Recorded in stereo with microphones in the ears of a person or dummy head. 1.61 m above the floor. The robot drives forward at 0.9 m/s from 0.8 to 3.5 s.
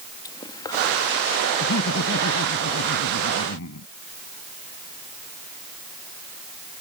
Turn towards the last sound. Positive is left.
turn(degrees=80)